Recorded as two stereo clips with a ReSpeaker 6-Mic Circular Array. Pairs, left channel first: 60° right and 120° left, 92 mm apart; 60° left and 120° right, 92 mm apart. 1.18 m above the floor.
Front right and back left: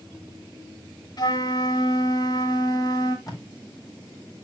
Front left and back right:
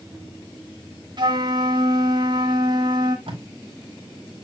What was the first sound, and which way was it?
A flute, 95° right.